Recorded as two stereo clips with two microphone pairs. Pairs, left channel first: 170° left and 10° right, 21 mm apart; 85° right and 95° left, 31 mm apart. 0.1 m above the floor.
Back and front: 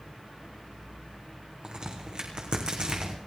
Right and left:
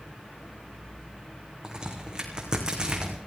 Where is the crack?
30° left, 2.5 m.